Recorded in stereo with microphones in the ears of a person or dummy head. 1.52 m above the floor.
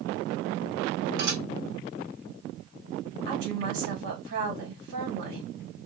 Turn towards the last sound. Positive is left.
turn(degrees=-65)  # may be behind; listen again after turning